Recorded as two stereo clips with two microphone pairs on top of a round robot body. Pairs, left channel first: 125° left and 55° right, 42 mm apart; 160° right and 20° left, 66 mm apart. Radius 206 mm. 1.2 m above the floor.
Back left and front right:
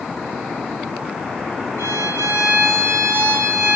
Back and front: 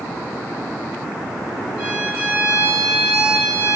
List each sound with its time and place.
1.8 s a violin: 55° right, 0.9 m